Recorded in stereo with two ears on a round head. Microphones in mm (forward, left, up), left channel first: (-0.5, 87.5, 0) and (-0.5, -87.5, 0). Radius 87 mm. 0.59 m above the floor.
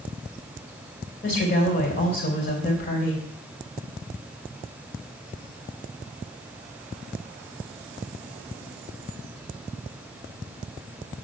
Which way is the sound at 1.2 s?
45° left (ahead or behind).